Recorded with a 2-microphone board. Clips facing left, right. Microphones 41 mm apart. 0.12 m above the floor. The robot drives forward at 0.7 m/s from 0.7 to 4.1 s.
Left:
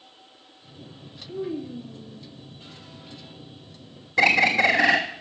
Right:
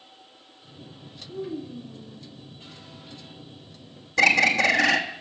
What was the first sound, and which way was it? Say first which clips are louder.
A child speaking: left 3 dB; 50° left (ahead or behind).